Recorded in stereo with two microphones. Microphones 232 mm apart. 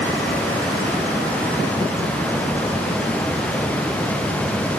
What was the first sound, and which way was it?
Only background noise.